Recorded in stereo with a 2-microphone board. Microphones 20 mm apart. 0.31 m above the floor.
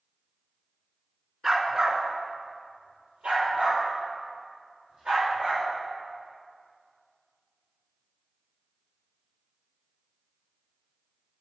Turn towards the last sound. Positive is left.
turn(degrees=-80)